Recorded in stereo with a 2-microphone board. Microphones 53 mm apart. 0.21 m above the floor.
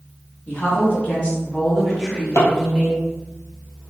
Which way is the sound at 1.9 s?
80° left.